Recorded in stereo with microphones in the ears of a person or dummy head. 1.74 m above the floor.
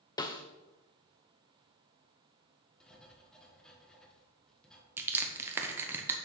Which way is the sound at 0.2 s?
25° left (ahead or behind).